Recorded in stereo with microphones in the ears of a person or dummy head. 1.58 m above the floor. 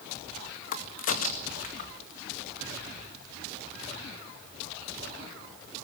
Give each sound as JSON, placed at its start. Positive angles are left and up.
{"t": 0.7, "sound": "a crack", "side_deg": 50, "distance_m": 2.0}